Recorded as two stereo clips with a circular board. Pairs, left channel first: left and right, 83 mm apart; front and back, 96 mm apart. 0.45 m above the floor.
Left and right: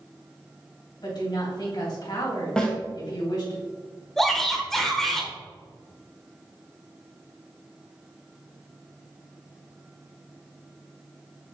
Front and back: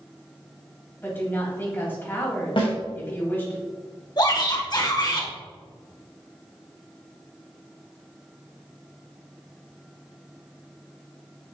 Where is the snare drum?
10° left, 2.5 m.